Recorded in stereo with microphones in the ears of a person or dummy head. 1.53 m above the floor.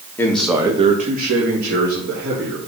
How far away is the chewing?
I don't hear chewing.